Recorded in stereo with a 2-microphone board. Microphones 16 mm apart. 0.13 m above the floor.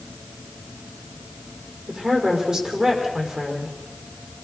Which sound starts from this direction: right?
A woman speaking, at 1.9 s.